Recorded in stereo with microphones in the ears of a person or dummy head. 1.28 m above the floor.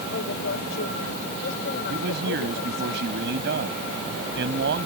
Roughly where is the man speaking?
Right.